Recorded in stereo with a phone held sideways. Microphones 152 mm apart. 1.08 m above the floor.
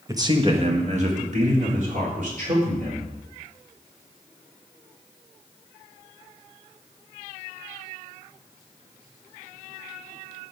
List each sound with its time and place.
0.1 s a man speaking: 20° right (ahead or behind), 1.0 m; by 3.1 s 65° right (ahead or behind), 4 m